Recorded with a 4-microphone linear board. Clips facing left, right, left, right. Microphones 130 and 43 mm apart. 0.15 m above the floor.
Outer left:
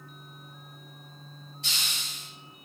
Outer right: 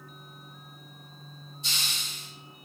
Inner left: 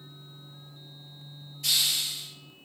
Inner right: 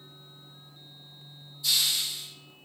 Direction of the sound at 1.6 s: 65° left (ahead or behind).